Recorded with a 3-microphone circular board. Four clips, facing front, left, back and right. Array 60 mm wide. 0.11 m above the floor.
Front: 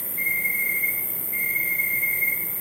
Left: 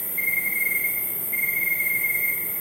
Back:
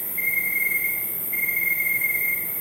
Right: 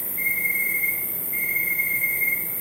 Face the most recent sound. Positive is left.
turn(degrees=100)